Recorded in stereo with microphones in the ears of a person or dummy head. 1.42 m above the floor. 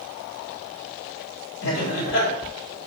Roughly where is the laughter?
Left.